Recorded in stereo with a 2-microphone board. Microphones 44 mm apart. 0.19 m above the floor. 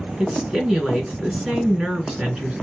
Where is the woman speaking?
15° right (ahead or behind), 2 m.